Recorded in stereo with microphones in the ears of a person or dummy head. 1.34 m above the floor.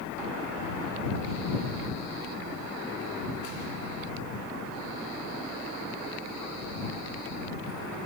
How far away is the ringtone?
I don't hear a ringtone.